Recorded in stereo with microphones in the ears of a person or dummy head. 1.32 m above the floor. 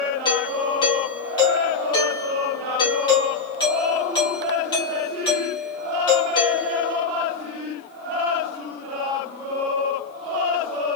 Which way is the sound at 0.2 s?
20° left (ahead or behind).